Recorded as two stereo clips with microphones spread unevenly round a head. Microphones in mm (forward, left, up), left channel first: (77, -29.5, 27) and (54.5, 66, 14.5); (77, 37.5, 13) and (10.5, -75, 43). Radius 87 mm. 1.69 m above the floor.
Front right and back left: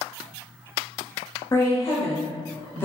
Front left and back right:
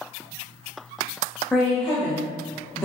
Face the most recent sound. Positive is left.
turn(degrees=-10)